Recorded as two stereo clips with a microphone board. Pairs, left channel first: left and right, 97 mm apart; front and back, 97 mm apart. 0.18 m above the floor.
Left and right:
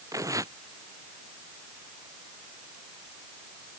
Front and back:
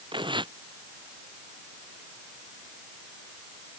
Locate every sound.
0.1 s tearing paper: 145° right